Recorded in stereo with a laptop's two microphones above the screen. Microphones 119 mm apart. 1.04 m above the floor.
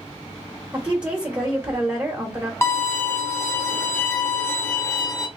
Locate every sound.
0.7 s a woman speaking: 20° right (ahead or behind), 1.3 m
2.6 s a violin: 20° left (ahead or behind), 1.0 m